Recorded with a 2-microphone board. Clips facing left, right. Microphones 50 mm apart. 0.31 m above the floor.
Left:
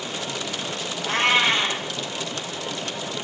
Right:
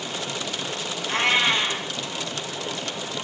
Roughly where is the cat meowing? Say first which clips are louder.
Left 2 dB; left.